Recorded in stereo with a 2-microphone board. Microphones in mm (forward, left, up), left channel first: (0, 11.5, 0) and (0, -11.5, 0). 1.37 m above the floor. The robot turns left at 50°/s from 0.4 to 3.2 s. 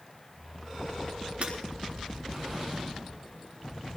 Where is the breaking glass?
75° right (ahead or behind), 4.5 m.